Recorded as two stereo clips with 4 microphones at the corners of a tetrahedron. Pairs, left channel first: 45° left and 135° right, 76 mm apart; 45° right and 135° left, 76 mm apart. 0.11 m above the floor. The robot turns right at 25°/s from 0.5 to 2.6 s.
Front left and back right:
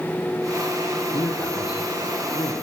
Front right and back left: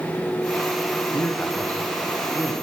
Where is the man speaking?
10° left, 4.5 m; by 2.5 s 45° left, 4.5 m.